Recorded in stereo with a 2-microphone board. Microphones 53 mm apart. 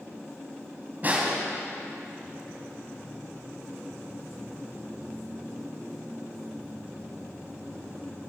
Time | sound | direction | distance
1.0 | a snare drum | 35° right (ahead or behind) | 3.5 m